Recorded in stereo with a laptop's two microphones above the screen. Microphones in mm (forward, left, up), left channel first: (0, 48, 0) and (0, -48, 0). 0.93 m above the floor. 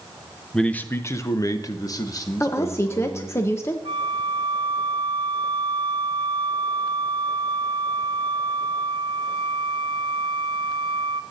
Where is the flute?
65° right (ahead or behind), 0.8 m.